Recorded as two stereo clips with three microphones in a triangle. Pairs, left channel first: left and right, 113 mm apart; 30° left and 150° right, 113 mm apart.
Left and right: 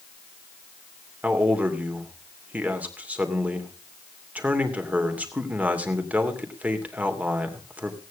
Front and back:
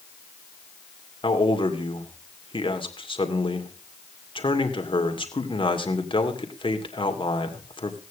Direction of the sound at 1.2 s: 15° right.